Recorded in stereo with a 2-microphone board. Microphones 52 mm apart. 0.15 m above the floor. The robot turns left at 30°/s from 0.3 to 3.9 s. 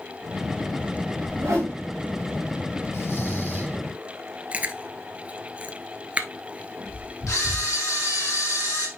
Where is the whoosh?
65° right (ahead or behind), 4 m; by 1.8 s 80° right, 4 m.